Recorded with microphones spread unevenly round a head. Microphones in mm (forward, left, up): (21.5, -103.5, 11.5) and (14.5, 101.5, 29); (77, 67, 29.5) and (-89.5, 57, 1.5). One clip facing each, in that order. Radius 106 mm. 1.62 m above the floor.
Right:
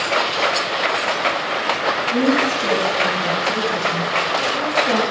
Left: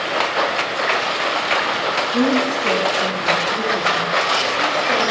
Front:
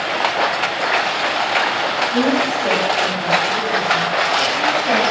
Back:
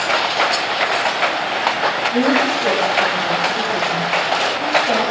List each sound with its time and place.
2.1 s a woman speaking: 90° right, 8 m; by 5.0 s 75° right, 8 m